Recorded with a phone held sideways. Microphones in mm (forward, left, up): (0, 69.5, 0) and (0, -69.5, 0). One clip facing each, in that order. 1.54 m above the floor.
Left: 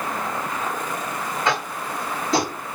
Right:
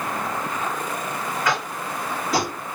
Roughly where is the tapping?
Left.